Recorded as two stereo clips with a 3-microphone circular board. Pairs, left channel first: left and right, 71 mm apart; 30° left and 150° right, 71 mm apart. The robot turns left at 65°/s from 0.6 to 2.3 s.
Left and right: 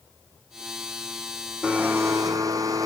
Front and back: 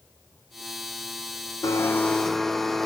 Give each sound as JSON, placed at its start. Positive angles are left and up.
{"t": 1.6, "sound": "a blender", "azimuth_deg": -15, "distance_m": 0.9}